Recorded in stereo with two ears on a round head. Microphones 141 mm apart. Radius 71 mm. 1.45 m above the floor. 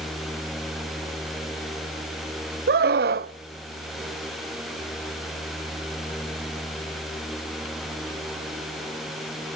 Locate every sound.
2.7 s a scream: 65° right (ahead or behind), 0.7 m